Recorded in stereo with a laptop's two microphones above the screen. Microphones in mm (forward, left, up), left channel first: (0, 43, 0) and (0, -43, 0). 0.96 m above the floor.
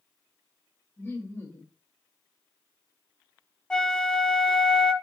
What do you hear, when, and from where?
1.0 s laughter: 30° left (ahead or behind), 1.4 m
3.7 s a flute: 10° left (ahead or behind), 0.7 m